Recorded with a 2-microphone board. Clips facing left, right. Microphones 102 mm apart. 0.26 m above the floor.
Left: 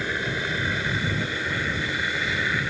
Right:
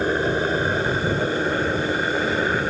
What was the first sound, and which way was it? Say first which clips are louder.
A helicopter: right 8 dB; 40° right (ahead or behind).